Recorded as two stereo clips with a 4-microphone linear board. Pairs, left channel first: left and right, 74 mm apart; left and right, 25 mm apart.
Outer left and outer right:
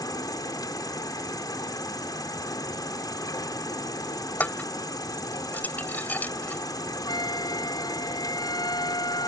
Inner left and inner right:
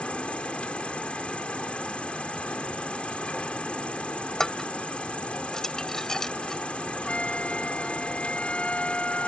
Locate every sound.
0.0 s an insect: 60° left (ahead or behind)
4.4 s dishes clattering: 25° left (ahead or behind)
7.0 s a flute: 75° left (ahead or behind)